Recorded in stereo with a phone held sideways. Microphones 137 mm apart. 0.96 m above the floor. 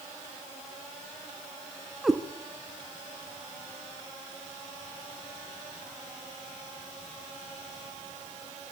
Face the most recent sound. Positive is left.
turn(degrees=0)  # may be behind; listen again after turning